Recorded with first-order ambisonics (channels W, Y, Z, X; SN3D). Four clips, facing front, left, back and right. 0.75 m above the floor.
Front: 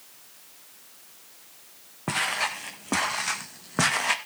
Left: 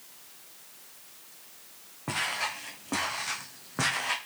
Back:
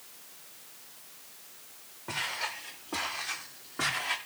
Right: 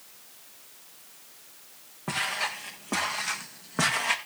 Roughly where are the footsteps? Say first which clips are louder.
Right 1 dB, front 7 dB; ahead.